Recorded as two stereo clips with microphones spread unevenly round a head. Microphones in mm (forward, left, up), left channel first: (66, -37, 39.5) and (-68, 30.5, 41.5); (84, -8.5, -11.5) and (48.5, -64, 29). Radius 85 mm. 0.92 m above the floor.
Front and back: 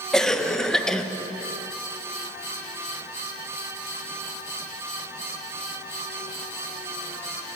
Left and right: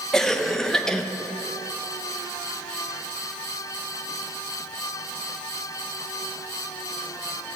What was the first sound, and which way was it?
A cough, 55° left.